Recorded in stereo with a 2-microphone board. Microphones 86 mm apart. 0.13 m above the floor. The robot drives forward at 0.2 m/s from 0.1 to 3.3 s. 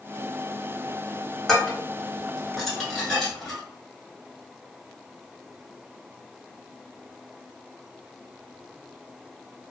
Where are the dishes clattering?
5° left (ahead or behind), 0.8 m.